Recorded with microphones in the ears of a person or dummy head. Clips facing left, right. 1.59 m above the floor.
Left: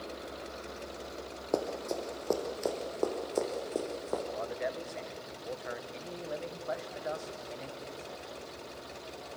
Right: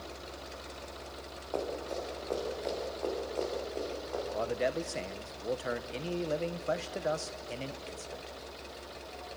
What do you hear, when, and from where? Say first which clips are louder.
1.5 s running footsteps: left 3 dB; 50° left (ahead or behind), 3.5 m; by 4.2 s 55° left (ahead or behind), 5.5 m
4.3 s a man speaking: right 4 dB; 45° right (ahead or behind), 1.2 m